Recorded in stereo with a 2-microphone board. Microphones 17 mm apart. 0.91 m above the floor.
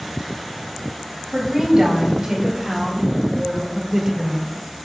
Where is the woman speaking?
30° right (ahead or behind), 4.5 m; by 4.5 s 25° right (ahead or behind), 2.0 m.